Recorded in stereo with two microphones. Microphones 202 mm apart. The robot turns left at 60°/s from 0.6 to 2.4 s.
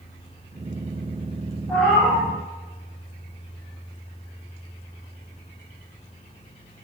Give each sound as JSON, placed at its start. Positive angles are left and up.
{"t": 1.7, "sound": "a cat meowing", "azimuth_deg": 10, "distance_m": 0.7}